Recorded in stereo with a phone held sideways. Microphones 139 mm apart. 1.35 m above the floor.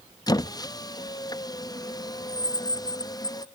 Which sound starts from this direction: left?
A squeak, at 0.3 s.